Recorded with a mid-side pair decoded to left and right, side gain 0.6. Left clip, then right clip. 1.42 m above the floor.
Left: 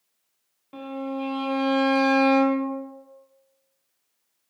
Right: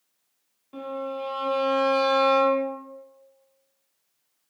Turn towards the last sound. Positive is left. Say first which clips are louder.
# right 1 dB
turn(degrees=30)